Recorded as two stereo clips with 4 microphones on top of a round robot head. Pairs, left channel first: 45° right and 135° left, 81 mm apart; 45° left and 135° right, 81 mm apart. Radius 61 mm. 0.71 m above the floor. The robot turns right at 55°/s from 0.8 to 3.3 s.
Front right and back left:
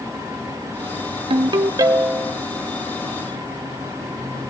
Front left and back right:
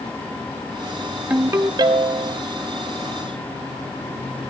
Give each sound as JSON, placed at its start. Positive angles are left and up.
{"t": 1.3, "sound": "a ringtone", "azimuth_deg": 155, "distance_m": 0.5}